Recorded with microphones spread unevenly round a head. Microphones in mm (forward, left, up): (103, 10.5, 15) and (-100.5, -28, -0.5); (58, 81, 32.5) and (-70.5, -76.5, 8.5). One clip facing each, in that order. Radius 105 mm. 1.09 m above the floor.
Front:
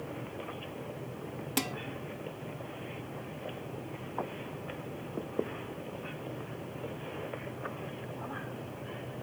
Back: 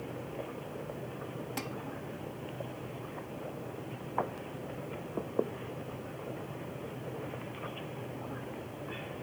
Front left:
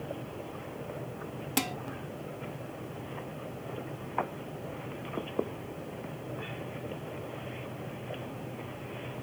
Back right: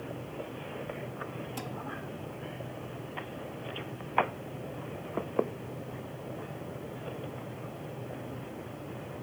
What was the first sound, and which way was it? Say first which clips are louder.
Dishes clattering: front 8 dB, front left 11 dB; 55° left.